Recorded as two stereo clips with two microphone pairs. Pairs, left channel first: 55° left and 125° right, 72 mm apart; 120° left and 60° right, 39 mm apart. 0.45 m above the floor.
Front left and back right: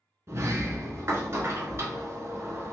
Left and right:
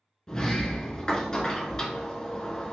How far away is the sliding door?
About 0.8 m.